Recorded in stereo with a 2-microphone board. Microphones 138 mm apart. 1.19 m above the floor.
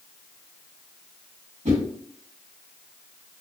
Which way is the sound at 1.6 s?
60° right (ahead or behind).